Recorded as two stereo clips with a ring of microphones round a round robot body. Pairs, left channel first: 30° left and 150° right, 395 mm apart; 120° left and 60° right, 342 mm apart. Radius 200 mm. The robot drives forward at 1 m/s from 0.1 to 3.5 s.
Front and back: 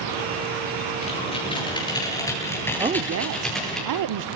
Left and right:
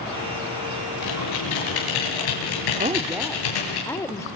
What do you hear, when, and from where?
1.0 s typing on a keyboard: 105° left, 9 m; by 3.8 s 120° left, 10 m
2.8 s a woman speaking: 90° right, 0.7 m; by 4.3 s 160° right, 1.0 m